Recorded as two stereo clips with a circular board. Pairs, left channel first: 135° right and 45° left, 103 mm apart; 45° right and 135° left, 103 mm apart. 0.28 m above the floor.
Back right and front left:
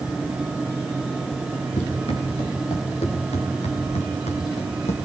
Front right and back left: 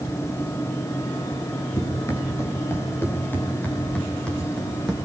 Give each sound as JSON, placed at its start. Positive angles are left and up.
{"t": 1.8, "sound": "running footsteps", "azimuth_deg": -105, "distance_m": 6.5}